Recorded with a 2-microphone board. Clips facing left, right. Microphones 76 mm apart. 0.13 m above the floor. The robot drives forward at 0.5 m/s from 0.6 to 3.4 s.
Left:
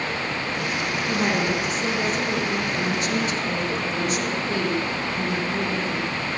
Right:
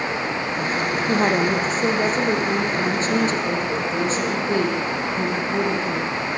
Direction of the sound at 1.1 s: 40° right (ahead or behind).